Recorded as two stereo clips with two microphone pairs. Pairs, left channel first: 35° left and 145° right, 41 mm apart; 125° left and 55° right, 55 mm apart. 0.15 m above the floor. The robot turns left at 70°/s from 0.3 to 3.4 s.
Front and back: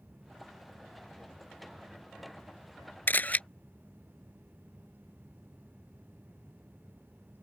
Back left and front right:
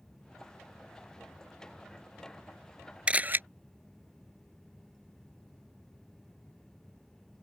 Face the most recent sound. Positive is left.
turn(degrees=-15)